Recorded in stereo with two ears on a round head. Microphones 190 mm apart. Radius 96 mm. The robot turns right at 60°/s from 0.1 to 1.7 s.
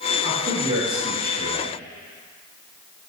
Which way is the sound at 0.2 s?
40° right.